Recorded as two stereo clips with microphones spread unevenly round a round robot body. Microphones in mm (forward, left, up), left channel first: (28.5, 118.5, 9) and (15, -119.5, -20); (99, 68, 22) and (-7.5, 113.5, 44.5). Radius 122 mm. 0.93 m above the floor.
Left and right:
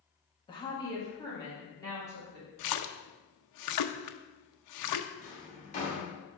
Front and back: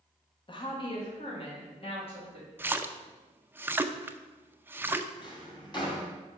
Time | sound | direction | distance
0.5 | a woman speaking | 15° left | 1.2 m
2.6 | a splash | 80° left | 0.6 m
5.2 | a drawer | 30° left | 2.0 m